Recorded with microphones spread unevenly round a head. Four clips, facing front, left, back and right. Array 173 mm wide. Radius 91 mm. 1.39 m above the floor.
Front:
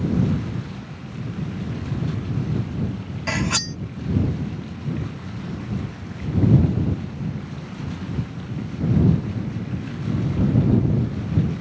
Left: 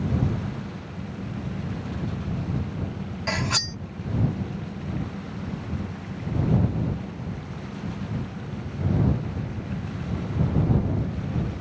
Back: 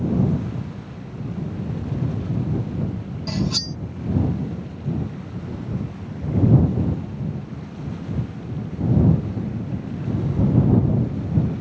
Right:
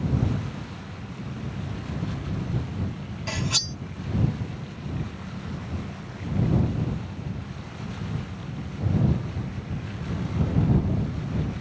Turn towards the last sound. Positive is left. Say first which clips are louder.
# left 3 dB, front 1 dB
turn(degrees=30)